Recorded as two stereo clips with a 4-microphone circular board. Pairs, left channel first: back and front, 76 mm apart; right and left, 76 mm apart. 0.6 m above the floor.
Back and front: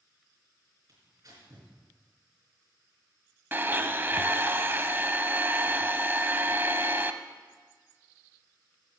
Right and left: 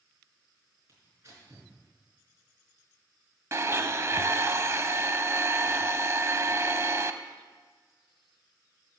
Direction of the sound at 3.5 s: 50° left.